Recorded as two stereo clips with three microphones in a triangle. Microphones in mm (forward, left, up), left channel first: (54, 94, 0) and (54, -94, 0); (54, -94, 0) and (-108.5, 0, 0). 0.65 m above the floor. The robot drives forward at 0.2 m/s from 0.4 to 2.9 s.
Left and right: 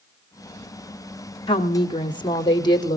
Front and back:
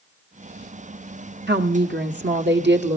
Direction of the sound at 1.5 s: 150° left.